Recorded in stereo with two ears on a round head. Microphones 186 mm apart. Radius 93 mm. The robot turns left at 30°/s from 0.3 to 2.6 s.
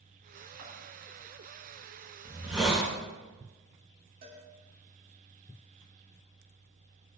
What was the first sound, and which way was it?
Scissors, 75° right (ahead or behind).